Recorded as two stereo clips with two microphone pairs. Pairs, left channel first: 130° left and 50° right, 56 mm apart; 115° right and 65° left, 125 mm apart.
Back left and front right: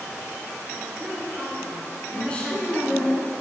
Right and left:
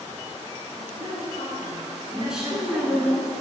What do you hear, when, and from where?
0.8 s a woman speaking: 45° left, 2 m
2.1 s a woman speaking: 130° left, 1.1 m